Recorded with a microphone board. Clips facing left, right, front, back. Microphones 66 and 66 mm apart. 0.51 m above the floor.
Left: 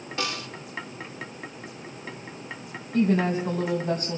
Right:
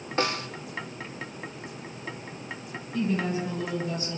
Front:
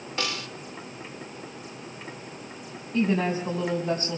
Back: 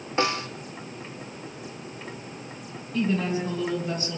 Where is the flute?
I don't hear a flute.